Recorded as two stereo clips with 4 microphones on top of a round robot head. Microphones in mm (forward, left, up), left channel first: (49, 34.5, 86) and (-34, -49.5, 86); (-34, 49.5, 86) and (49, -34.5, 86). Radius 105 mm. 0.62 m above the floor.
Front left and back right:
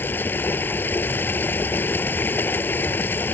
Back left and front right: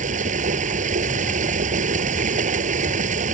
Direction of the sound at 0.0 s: 30° right.